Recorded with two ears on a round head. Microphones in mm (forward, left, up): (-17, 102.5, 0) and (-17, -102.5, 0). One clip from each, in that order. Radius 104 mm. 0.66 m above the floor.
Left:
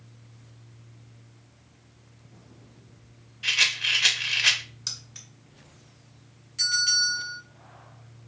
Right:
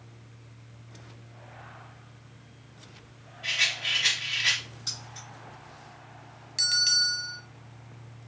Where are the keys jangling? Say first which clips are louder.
Left 1 dB; 25° left (ahead or behind), 1.7 m.